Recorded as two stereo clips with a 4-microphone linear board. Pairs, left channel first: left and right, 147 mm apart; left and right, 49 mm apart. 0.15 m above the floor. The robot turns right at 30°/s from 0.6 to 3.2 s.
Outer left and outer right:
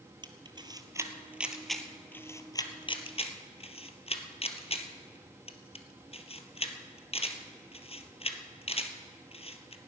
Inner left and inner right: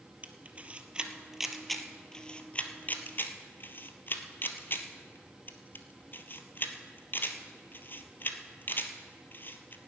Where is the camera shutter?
30° right (ahead or behind), 1.2 m; by 9.8 s 45° left (ahead or behind), 1.2 m.